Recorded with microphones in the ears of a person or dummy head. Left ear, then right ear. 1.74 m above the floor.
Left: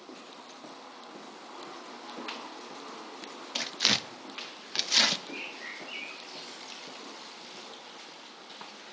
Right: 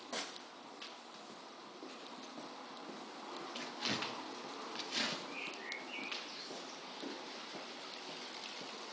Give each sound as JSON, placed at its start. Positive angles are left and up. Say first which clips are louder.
{"t": 3.5, "sound": "tearing paper", "louder": "left 13 dB", "side_deg": 45, "distance_m": 0.6}
{"t": 5.3, "sound": "a bird", "louder": "left 5 dB", "side_deg": 45, "distance_m": 1.9}